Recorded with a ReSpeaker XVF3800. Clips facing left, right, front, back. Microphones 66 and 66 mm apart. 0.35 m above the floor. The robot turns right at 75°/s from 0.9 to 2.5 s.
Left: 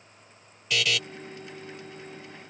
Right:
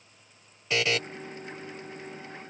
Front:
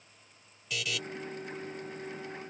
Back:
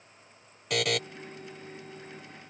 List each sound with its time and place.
0.7 s a buzzer: 150° right; by 1.0 s 140° right